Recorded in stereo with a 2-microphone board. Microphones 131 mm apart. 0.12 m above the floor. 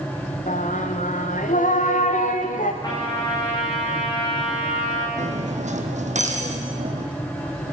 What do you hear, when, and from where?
0.5 s singing: 85° left, 3 m
2.8 s a trumpet: 35° left (ahead or behind), 7 m
5.2 s cutlery clinking: 65° right (ahead or behind), 3 m